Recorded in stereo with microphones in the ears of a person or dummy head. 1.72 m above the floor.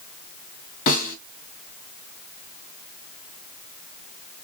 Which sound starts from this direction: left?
A snare drum, at 0.9 s.